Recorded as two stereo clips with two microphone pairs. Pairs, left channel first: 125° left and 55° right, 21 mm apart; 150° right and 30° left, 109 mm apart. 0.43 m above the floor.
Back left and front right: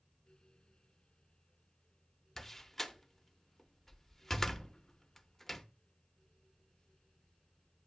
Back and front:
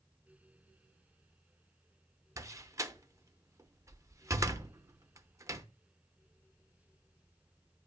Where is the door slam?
65° left, 0.6 m.